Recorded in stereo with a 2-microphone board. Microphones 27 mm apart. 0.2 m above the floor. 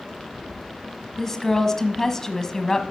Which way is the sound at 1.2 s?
20° left (ahead or behind).